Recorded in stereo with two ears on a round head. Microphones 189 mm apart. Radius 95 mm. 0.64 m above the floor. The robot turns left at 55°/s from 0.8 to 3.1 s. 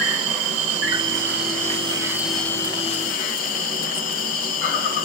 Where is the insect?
95° right, 1.5 m; by 5.1 s 140° left, 1.5 m.